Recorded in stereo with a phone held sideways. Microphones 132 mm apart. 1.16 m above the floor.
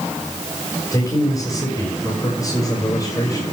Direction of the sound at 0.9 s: 25° left (ahead or behind).